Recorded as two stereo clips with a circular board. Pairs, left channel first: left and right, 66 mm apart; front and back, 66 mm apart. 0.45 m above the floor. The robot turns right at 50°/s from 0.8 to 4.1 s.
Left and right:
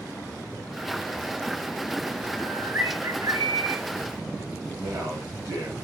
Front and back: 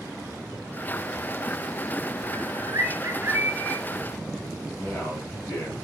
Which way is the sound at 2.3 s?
165° right.